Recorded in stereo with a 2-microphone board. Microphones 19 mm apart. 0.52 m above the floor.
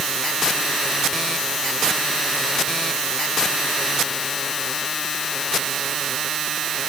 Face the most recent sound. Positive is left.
No sound to turn to.